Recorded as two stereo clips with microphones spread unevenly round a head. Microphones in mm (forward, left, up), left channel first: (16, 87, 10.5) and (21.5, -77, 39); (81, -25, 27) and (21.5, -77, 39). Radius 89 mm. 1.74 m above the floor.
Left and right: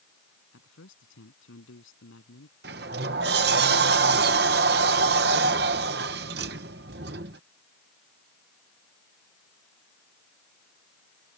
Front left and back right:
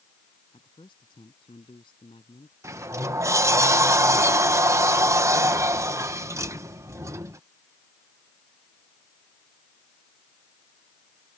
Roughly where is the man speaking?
Left.